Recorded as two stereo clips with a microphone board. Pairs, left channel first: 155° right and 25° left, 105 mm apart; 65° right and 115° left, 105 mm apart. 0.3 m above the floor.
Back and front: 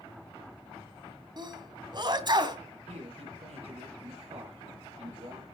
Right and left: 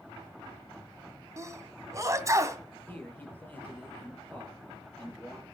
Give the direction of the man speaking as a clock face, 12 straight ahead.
12 o'clock.